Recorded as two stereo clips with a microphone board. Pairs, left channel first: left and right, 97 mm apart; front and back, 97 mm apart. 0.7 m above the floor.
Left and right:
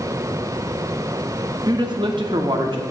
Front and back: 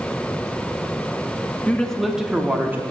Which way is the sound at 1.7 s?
70° right.